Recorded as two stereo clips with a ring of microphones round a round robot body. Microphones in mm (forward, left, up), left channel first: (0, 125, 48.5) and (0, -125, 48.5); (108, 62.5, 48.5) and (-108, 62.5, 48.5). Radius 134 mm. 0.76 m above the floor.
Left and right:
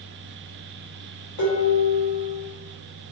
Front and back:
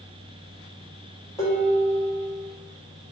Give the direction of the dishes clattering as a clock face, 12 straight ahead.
9 o'clock.